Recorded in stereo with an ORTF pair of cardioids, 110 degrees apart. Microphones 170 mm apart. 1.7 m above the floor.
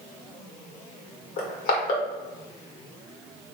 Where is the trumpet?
I don't hear a trumpet.